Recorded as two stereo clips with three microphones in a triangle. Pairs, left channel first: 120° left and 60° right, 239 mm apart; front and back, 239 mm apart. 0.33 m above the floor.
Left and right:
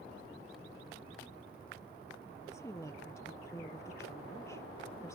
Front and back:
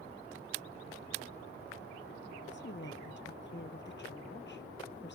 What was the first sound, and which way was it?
A woman speaking, 40° left.